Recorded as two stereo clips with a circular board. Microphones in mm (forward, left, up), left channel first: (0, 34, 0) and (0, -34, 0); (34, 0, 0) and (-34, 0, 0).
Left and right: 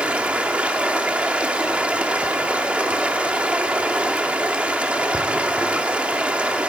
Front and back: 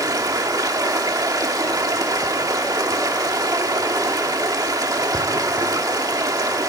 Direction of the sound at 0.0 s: 160° right.